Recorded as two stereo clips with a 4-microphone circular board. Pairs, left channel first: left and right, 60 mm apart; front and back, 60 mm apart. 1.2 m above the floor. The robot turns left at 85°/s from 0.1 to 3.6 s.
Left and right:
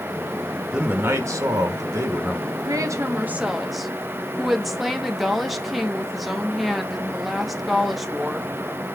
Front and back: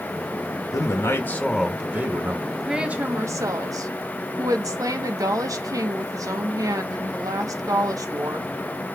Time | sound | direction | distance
0.7 | a man speaking | 15° right | 1.3 m
2.5 | a woman speaking | 80° right | 1.3 m